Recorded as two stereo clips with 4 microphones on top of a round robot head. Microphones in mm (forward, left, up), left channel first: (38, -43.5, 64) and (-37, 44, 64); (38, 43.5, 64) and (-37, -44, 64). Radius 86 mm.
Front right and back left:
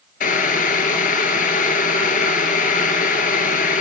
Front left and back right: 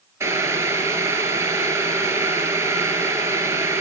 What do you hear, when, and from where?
0.2 s boiling: 60° right, 1.5 m